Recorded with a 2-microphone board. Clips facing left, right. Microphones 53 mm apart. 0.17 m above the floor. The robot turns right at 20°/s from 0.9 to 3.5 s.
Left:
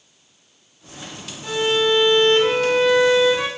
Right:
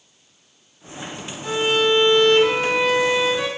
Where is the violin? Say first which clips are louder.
Even; straight ahead, 7 m; by 3.5 s 40° left, 7 m.